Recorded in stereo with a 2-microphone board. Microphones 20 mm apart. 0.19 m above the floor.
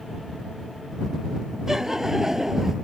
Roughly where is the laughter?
Centre.